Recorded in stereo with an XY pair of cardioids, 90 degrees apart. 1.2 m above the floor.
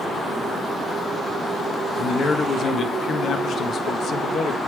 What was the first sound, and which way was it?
A man speaking, 65° left.